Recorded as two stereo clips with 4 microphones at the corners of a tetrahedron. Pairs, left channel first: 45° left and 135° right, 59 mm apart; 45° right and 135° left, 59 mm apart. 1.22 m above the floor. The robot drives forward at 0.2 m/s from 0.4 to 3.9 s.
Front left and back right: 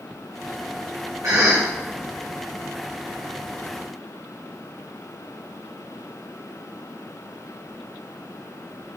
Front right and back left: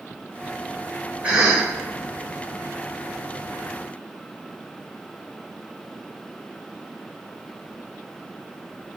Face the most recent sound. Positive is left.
turn(degrees=-160)